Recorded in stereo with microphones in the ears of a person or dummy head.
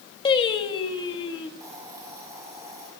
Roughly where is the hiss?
Centre.